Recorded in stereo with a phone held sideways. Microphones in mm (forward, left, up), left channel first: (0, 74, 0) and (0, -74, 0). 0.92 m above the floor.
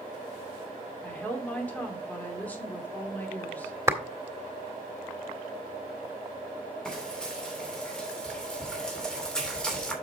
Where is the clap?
20° right (ahead or behind), 1.8 m.